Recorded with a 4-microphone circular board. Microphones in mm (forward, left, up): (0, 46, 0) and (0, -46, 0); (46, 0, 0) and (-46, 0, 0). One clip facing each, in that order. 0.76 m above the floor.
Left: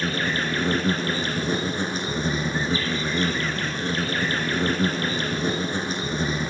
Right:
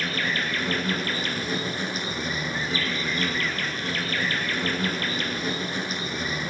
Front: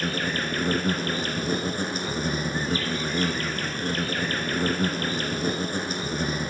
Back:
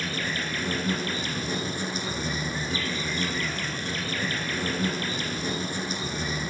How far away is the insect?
About 1.4 m.